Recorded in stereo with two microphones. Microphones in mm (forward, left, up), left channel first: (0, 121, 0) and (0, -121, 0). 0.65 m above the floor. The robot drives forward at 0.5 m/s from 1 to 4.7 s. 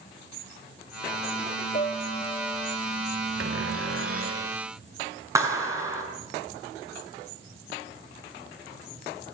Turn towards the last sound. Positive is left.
turn(degrees=-10)  # may be behind; listen again after turning